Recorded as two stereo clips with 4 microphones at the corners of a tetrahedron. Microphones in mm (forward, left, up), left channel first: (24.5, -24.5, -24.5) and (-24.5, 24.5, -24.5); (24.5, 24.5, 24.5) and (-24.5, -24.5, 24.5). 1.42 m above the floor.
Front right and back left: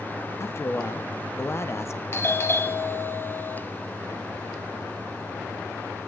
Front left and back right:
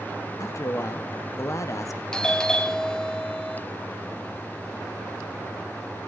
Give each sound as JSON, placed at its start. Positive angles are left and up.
{"t": 0.4, "sound": "a man speaking", "azimuth_deg": 5, "distance_m": 0.8}
{"t": 2.1, "sound": "a doorbell", "azimuth_deg": -30, "distance_m": 0.8}